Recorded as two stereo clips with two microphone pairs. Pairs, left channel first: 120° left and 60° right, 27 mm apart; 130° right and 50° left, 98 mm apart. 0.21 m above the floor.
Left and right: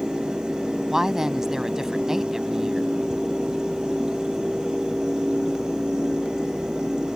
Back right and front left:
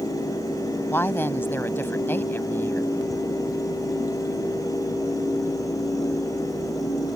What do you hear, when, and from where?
0.9 s a woman speaking: 100° right